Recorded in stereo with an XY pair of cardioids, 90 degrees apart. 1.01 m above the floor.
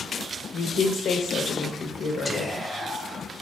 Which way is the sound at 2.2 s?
25° left.